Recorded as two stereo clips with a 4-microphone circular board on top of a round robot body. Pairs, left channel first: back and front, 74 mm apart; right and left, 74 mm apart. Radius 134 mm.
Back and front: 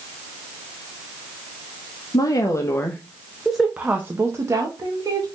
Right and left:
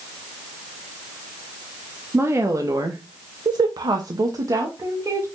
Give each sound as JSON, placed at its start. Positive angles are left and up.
{"t": 2.1, "sound": "a woman speaking", "azimuth_deg": 145, "distance_m": 0.9}